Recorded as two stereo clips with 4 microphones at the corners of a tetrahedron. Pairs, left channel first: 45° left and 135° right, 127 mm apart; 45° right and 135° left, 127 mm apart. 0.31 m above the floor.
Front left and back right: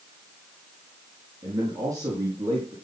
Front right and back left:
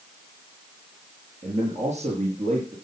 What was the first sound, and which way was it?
A man speaking, 160° left.